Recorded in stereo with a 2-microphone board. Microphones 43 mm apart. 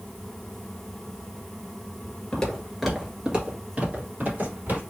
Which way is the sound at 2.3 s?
15° left (ahead or behind).